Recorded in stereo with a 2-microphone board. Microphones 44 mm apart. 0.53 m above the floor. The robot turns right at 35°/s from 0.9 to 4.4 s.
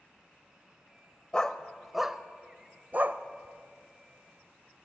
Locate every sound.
1.3 s a dog barking: 15° left (ahead or behind), 0.5 m; by 3.2 s 50° right (ahead or behind), 0.5 m